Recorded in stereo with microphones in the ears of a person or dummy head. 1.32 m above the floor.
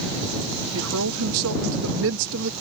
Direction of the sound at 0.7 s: 80° right.